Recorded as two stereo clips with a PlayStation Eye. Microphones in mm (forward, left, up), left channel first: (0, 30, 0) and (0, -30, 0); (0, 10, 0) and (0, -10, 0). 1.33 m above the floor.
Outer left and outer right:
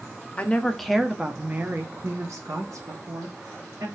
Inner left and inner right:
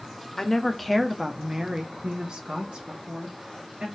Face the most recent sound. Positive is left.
turn(degrees=-70)  # may be behind; listen again after turning